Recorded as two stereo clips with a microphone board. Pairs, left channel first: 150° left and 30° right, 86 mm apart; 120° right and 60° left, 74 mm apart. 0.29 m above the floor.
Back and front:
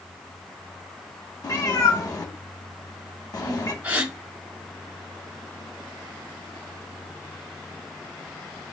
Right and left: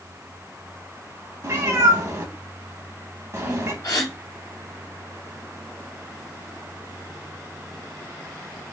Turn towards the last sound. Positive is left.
turn(degrees=-100)